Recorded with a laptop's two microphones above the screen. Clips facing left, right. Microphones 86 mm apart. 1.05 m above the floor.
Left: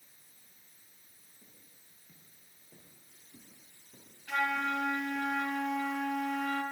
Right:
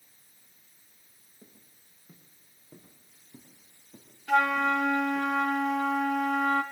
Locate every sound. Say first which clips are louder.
1.4 s footsteps: right 7 dB; 45° right (ahead or behind), 5.5 m; by 5.3 s 15° right (ahead or behind), 5.5 m
4.3 s a flute: right 8 dB; 75° right (ahead or behind), 1.3 m